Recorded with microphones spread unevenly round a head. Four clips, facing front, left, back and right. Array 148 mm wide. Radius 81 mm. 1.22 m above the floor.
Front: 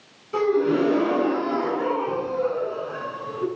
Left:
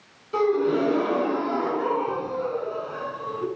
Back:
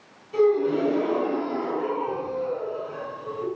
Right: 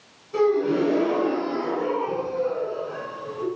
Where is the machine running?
No machine running in this recording.